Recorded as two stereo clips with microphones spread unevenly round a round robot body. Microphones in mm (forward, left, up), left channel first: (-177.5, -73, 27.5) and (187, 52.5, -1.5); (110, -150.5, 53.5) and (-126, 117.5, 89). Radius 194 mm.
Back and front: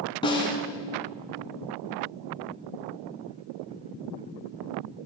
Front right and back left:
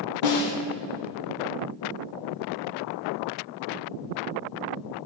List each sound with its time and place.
0.2 s a snare drum: 85° right, 1.4 m